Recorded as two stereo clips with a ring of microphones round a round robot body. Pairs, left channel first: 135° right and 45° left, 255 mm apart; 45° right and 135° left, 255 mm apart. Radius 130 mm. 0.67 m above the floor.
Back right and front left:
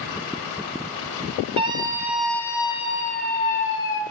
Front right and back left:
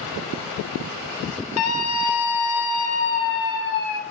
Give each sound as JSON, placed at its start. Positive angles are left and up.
{"t": 1.6, "sound": "a scream", "azimuth_deg": -20, "distance_m": 2.0}